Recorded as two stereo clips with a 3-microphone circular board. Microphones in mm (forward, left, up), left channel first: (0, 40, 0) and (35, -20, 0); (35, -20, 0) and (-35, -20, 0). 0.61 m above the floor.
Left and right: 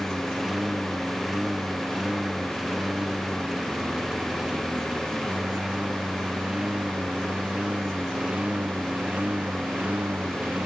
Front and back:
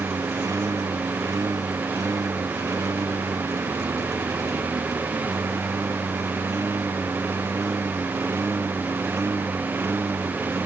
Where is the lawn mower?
145° right; by 10.7 s 125° right.